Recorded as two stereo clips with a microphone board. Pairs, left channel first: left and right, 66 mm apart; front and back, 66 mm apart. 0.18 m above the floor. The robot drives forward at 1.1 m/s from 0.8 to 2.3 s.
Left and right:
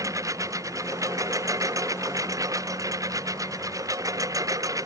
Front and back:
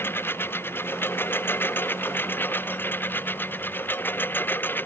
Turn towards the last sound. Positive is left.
turn(degrees=-60)